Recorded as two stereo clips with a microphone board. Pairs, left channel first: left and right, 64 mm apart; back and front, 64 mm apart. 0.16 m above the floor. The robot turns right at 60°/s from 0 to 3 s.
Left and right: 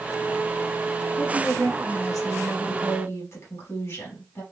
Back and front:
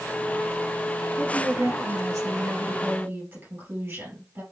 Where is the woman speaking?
60° right, 3 m; by 4.4 s 50° left, 3 m.